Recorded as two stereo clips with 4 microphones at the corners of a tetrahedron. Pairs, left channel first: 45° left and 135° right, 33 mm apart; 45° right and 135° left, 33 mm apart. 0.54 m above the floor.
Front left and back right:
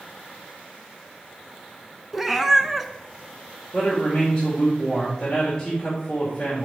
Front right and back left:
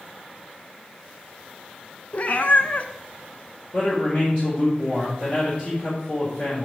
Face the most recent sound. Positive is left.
turn(degrees=-20)